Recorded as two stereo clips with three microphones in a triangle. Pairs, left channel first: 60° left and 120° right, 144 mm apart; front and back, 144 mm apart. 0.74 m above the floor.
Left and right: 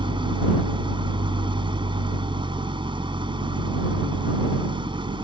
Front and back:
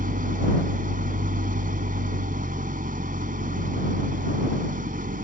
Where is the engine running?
175° right.